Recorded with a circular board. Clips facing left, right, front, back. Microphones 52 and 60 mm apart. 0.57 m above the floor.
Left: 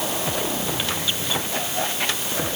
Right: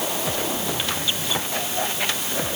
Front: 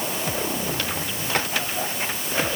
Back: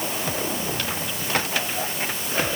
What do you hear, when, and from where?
Only background noise.